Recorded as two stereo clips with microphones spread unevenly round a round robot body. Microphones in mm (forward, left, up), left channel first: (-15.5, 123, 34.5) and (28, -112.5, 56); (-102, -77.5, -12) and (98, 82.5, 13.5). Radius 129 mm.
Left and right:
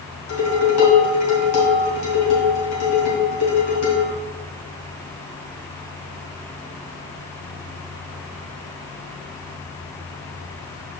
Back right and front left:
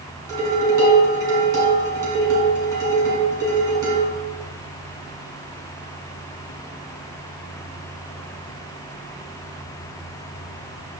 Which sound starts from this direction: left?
Dishes clattering, at 0.3 s.